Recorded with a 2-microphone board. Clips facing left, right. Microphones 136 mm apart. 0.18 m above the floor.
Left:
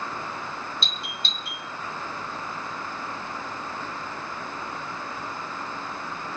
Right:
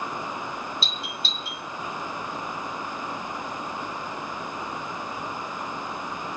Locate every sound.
0.8 s a doorbell: centre (ahead or behind), 1.4 m